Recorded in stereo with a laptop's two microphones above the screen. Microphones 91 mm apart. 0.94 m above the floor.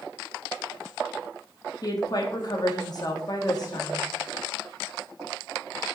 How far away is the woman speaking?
About 1.9 m.